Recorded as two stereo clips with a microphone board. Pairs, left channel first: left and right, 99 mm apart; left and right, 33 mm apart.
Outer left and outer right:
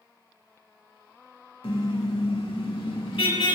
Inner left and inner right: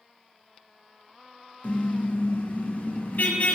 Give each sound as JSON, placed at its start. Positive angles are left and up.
{"t": 1.6, "sound": "a car horn", "side_deg": 70, "distance_m": 3.0}